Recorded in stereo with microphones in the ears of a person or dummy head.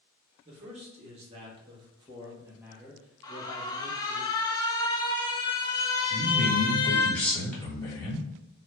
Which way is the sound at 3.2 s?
20° left (ahead or behind).